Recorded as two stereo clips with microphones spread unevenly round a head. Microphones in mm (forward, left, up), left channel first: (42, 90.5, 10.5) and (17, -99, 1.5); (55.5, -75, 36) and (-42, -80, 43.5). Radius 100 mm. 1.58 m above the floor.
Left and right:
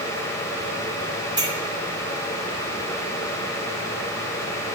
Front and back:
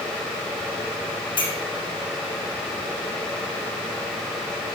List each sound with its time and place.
1.4 s a clink: 30° right, 7 m